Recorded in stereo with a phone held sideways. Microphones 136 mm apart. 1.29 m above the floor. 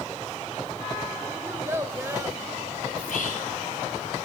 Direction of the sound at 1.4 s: 20° right (ahead or behind).